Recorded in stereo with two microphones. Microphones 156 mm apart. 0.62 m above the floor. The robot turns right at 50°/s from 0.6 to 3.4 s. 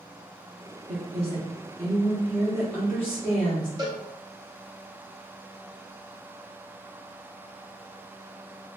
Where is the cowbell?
25° right (ahead or behind), 0.8 m.